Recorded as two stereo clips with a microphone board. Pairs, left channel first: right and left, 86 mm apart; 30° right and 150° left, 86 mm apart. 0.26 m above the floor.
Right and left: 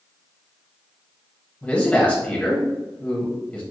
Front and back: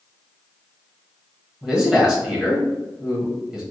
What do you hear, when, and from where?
1.6 s a man speaking: 145° right, 1.2 m